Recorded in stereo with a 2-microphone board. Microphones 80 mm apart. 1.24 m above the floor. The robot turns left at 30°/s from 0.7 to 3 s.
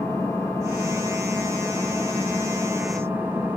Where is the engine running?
40° left, 2 m; by 3.6 s 30° right, 2 m.